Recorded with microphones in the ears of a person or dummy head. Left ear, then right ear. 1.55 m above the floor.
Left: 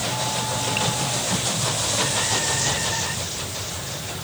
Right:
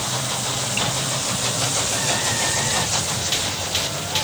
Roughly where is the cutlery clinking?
No cutlery clinking in this recording.